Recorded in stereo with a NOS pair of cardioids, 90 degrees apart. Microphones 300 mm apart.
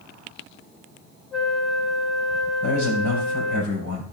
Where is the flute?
Straight ahead, 1.3 m.